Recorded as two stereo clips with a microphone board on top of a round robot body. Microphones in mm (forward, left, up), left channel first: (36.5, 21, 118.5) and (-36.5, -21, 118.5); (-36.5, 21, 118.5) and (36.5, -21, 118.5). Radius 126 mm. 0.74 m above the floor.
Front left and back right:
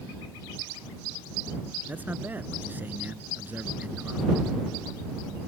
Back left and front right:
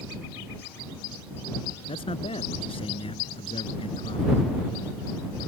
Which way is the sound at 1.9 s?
140° left.